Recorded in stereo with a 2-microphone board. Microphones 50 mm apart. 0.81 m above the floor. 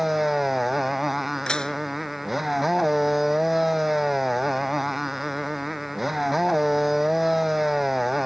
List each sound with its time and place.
0.0 s a motorcycle: centre (ahead or behind)
1.5 s dishes clattering: 15° left (ahead or behind)